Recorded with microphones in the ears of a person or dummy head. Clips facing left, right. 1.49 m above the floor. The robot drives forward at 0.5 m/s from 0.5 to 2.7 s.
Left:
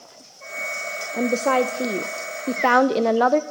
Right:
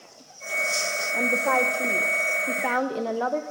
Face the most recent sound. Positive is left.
turn(degrees=75)  # may be behind; listen again after turning